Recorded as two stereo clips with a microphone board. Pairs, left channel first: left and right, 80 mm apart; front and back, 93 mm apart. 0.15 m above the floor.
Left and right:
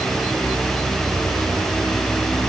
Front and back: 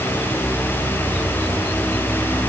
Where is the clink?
I don't hear a clink.